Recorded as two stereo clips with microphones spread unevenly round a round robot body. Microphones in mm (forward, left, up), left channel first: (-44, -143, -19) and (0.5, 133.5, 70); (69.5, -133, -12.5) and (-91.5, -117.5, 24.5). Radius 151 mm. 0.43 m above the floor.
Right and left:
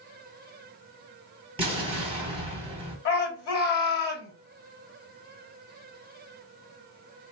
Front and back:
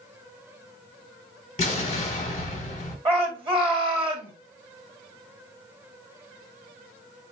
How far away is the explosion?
About 1.5 m.